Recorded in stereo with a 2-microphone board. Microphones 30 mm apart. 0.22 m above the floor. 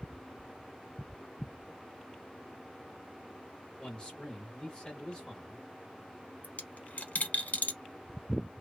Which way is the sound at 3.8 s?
25° left (ahead or behind).